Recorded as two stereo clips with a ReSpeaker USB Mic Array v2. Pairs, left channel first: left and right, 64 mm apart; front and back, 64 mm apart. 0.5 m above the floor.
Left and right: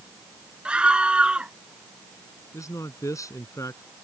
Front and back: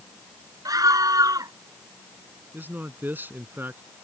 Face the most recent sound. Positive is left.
turn(degrees=120)